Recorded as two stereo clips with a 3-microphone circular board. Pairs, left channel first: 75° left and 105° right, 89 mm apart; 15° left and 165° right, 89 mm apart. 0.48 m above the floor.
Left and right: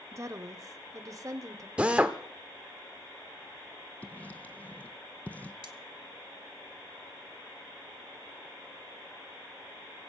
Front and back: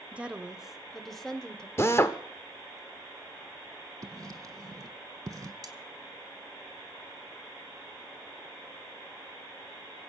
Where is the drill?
35° right, 0.8 m.